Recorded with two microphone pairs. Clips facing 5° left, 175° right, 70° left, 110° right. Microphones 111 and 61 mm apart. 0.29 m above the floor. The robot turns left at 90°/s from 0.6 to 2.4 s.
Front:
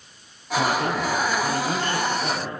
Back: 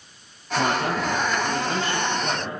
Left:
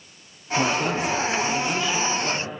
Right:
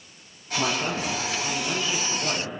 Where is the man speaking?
90° left, 7 m; by 2.5 s 70° right, 7 m.